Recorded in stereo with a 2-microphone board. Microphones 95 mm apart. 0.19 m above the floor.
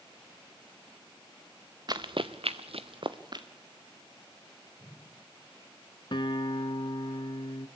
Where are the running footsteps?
45° right (ahead or behind), 1.2 m.